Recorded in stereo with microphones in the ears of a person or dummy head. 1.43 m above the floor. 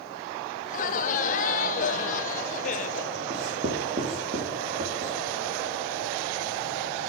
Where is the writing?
40° right (ahead or behind), 3.5 m.